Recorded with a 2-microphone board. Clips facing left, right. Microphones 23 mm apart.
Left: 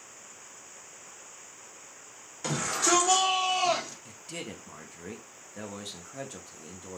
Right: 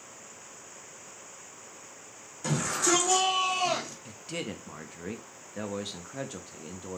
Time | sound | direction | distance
2.4 | a shout | 25° left (ahead or behind) | 2.5 m
4.0 | a man speaking | 15° right (ahead or behind) | 0.5 m